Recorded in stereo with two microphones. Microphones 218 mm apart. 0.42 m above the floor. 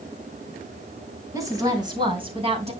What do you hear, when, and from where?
1.3 s a woman speaking: 15° right (ahead or behind), 3.5 m; by 2.7 s 30° right (ahead or behind), 3 m